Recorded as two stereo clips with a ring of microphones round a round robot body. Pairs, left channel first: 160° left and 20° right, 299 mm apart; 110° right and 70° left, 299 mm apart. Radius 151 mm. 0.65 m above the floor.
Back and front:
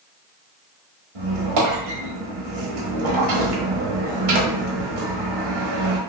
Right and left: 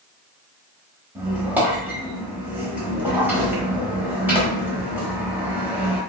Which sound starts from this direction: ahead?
A squeak, at 1.1 s.